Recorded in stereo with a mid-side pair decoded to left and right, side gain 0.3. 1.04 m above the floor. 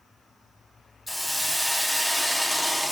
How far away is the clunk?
No clunk in this recording.